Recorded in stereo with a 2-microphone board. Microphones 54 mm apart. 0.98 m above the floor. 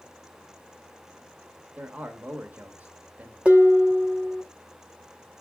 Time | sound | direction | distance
1.8 | a man speaking | 30° right (ahead or behind) | 1.2 m
3.5 | dishes clattering | 25° right (ahead or behind) | 0.9 m